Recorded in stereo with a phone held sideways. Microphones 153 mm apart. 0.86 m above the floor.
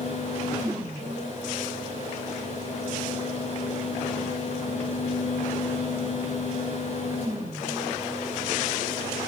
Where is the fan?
55° left (ahead or behind), 6 m.